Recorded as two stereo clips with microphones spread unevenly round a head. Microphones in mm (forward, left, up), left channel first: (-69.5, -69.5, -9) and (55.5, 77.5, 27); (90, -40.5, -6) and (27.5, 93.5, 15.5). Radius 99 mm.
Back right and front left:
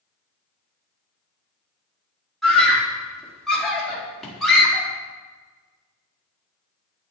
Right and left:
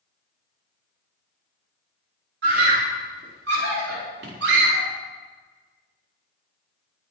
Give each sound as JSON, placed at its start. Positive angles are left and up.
{"t": 2.4, "sound": "a scream", "azimuth_deg": 140, "distance_m": 4.5}